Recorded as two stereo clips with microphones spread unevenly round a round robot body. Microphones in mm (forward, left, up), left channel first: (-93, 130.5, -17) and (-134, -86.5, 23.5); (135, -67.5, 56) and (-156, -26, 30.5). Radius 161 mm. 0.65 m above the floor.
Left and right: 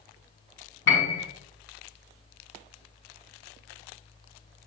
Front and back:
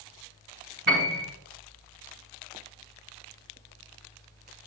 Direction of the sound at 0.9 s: 115° left.